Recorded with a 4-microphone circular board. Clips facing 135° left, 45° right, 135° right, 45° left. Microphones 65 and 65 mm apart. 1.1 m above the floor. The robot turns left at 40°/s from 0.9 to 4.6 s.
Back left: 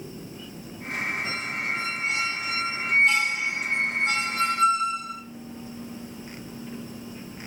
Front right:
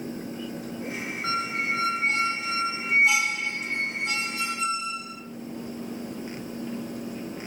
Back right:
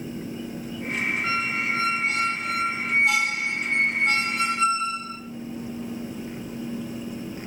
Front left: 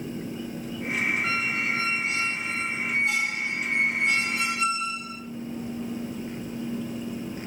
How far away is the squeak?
About 1.7 m.